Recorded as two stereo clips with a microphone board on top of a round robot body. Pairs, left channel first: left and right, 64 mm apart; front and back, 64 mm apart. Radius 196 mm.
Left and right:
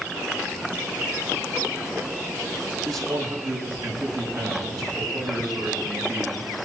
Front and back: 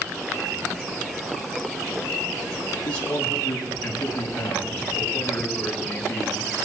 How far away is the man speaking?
About 6 m.